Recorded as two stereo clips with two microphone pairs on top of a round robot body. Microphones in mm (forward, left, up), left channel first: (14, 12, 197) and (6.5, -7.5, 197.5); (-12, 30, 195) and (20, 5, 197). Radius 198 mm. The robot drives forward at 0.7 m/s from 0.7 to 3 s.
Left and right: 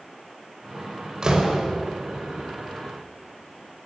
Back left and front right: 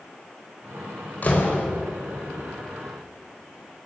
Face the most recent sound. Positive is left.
turn(degrees=-175)